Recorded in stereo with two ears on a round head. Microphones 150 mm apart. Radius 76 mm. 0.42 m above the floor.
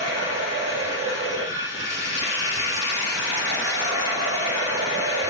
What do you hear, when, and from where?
0.0 s running water: 60° left (ahead or behind), 4.5 m